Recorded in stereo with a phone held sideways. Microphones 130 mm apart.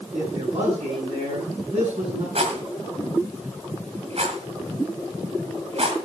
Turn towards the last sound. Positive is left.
turn(degrees=-55)  # may be behind; listen again after turning